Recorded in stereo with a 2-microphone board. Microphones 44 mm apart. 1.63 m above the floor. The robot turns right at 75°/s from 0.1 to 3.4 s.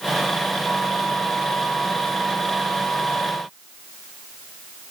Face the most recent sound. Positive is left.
No sound to turn to.